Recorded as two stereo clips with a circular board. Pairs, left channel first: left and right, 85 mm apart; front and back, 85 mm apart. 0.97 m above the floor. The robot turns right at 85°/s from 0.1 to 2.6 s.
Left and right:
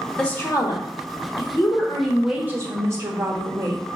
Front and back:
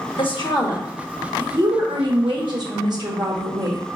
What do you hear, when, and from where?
0.2 s a woman speaking: 10° left, 1.1 m; by 3.8 s 145° right, 1.1 m